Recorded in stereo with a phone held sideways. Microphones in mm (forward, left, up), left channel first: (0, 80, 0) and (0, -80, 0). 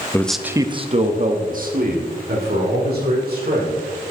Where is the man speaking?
15° left (ahead or behind), 0.6 m; by 3.8 s 75° right (ahead or behind), 3 m.